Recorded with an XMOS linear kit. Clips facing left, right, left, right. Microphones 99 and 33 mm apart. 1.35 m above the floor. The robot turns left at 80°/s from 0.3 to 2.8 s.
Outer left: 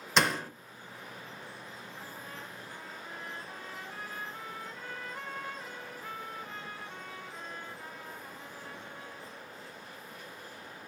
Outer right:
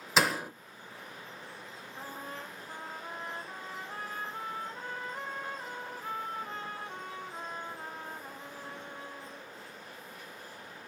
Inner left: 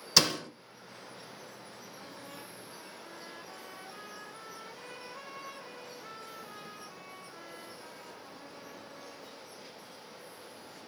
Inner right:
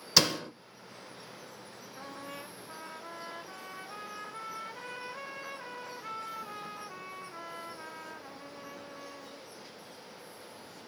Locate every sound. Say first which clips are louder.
0.2 s a door slam: even, even; 5° right (ahead or behind), 0.6 m; by 0.5 s 20° right (ahead or behind), 0.6 m
2.0 s a trumpet: outer right 6 dB, inner right 6 dB; 50° right, 0.6 m; by 9.5 s 120° right, 0.6 m